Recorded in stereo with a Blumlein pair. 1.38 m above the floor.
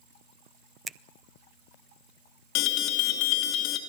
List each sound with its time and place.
0.9 s a finger snap: 15° right, 0.7 m
2.5 s an alarm: 40° left, 2.5 m